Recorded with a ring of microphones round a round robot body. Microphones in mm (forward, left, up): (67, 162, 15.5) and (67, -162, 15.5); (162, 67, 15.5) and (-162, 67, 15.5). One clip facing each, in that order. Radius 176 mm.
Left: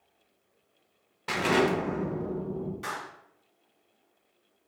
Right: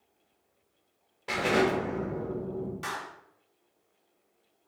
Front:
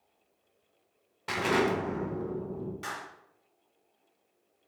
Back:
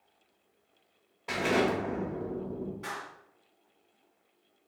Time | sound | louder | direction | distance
1.3 | an explosion | left 1 dB, even | 45° left | 1.3 m
2.8 | a clap | even, back 1 dB | 25° right | 2 m